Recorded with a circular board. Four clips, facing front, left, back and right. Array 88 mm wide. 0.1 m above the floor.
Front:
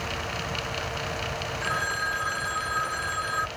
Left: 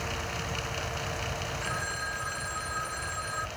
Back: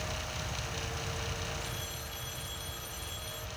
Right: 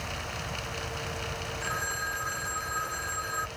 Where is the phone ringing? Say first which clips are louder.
Right 4 dB, front 15 dB; 5° right.